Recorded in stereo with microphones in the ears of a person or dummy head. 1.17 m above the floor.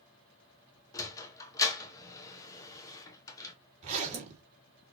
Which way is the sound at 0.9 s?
15° left (ahead or behind).